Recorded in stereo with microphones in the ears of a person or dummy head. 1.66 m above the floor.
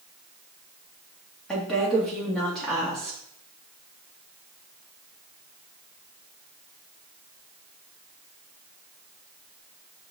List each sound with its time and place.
1.5 s a woman speaking: 5° left (ahead or behind), 3 m